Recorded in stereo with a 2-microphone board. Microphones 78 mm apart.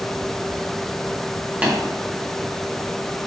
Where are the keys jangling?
No keys jangling in this recording.